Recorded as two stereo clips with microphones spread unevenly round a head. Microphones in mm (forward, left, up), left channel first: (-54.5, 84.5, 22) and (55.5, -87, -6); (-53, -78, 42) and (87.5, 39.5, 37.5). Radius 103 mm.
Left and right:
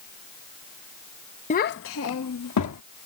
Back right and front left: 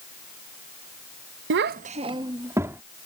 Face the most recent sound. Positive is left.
turn(degrees=120)